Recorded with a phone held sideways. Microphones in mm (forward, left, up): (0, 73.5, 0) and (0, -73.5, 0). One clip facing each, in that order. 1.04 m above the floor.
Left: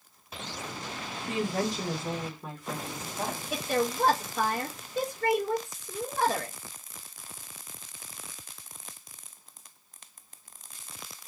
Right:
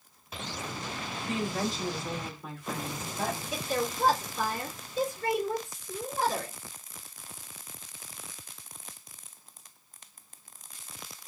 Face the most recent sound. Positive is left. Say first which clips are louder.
# left 3 dB
turn(degrees=75)  # may be behind; listen again after turning